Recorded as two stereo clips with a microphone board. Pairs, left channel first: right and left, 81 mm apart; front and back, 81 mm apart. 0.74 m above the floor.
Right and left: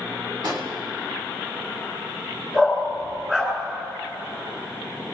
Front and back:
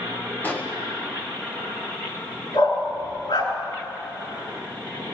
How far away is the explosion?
About 1.9 m.